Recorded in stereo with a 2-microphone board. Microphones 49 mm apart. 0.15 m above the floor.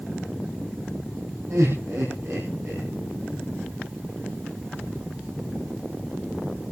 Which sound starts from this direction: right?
Laughter, at 1.5 s.